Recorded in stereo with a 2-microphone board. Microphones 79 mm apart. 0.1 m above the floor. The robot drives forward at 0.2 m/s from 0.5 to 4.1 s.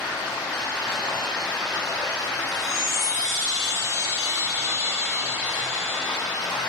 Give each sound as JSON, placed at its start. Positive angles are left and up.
{"t": 0.0, "sound": "running water", "side_deg": 40, "distance_m": 1.5}
{"t": 2.5, "sound": "a chime", "side_deg": 55, "distance_m": 0.7}